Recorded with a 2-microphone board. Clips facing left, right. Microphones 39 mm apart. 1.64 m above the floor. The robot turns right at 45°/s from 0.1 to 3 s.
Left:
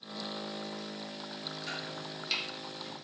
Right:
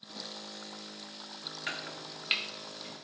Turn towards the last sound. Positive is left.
turn(degrees=-20)  # may be behind; listen again after turning